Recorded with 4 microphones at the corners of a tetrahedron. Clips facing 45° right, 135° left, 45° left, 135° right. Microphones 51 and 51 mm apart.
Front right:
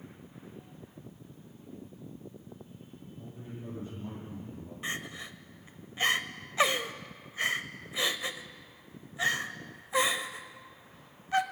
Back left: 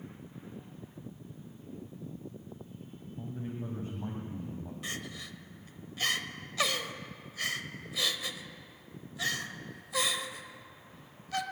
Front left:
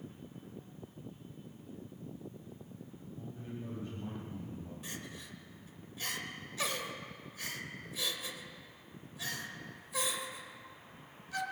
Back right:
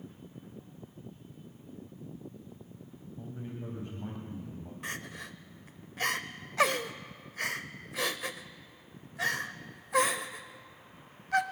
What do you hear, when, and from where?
3.2 s a man speaking: 160° left, 2.5 m
4.8 s crying: 105° right, 0.6 m